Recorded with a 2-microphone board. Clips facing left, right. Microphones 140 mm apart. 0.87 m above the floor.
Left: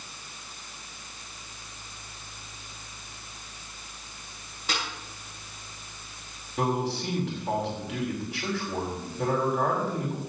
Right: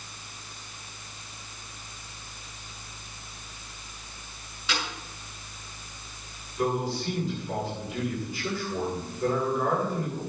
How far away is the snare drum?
About 7.5 m.